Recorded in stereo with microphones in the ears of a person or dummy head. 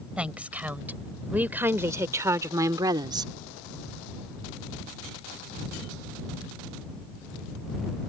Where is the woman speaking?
5° right (ahead or behind); by 3.3 s 20° right (ahead or behind).